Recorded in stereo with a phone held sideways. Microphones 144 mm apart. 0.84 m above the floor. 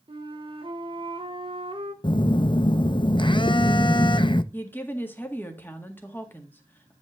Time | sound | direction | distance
0.1 | a flute | 40° right (ahead or behind) | 1.2 m
2.0 | a phone buzzing | 35° left (ahead or behind) | 0.5 m
4.5 | a woman speaking | 15° left (ahead or behind) | 1.7 m